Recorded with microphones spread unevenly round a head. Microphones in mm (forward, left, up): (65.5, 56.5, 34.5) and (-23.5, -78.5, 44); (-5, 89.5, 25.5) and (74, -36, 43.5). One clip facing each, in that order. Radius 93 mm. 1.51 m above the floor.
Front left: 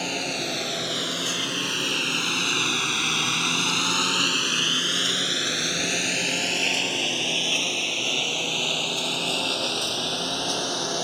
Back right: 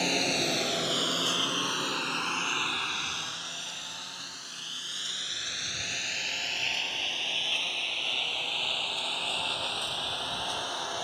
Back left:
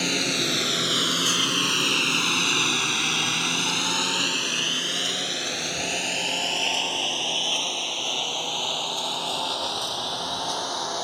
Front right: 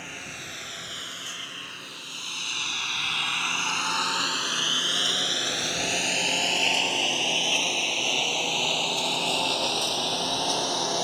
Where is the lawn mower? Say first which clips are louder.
Even, back left 15 dB; 155° left; by 11.0 s 10° left.